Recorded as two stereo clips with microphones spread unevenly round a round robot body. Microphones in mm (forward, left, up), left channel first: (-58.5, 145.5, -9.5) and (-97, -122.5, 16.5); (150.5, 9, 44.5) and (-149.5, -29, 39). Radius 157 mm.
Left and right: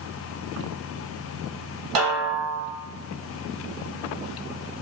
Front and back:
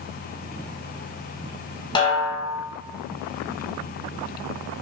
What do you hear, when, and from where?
1.9 s a snare drum: 70° right, 1.0 m